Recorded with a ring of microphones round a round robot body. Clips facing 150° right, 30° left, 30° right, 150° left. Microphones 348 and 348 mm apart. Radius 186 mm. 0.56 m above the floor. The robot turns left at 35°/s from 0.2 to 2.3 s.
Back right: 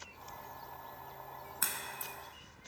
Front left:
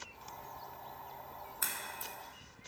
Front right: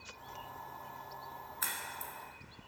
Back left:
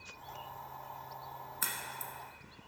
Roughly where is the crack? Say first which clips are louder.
Back right 1 dB, back left 1 dB; behind.